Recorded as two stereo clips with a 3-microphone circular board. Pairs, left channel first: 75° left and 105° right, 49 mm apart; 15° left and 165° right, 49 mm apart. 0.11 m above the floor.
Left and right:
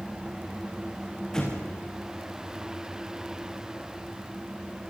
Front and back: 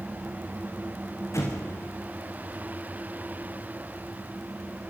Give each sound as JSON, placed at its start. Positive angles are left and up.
{"t": 1.3, "sound": "an explosion", "azimuth_deg": -5, "distance_m": 5.5}